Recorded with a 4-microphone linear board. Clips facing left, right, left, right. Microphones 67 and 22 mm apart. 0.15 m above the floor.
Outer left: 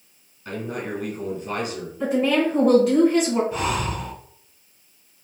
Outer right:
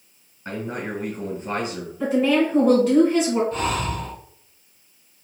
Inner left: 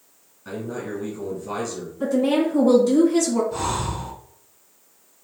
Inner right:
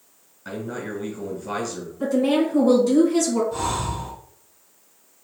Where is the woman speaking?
5° left (ahead or behind), 1.5 m.